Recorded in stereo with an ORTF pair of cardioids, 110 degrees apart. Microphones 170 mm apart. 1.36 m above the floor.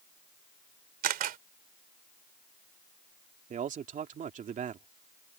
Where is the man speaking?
50° right.